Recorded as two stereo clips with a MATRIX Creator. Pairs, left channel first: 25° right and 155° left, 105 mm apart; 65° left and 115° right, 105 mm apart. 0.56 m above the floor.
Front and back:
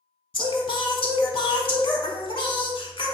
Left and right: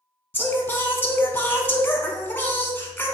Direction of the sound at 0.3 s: Straight ahead.